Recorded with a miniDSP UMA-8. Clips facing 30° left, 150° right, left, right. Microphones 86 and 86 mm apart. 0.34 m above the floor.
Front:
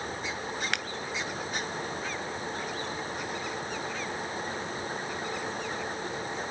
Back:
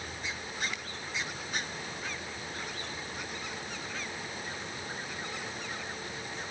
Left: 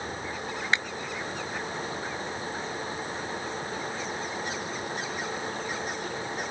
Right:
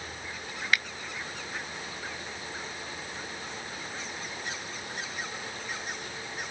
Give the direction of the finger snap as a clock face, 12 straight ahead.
11 o'clock.